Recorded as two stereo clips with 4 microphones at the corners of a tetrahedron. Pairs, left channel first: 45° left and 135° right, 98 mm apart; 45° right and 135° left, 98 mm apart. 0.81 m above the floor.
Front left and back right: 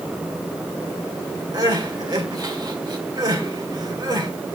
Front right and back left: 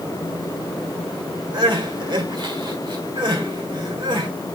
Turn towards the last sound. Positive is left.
turn(degrees=175)